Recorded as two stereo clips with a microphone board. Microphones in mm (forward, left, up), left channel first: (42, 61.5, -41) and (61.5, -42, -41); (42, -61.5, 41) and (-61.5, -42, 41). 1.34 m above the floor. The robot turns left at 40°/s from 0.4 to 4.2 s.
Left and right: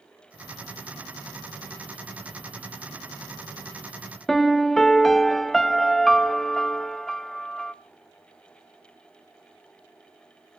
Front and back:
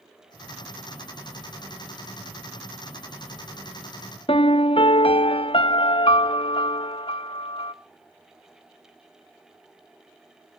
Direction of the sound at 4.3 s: 15° left.